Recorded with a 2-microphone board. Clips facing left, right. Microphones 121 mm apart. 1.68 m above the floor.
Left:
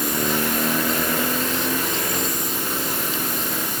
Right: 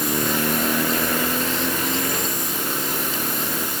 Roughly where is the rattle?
I don't hear a rattle.